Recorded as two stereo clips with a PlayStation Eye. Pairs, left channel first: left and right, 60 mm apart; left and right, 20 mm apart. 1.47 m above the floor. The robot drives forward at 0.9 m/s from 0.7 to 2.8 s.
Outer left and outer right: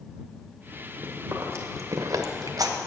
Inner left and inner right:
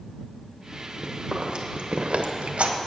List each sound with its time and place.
1.0 s chewing: 35° right (ahead or behind), 1.5 m; by 2.8 s 70° right (ahead or behind), 1.0 m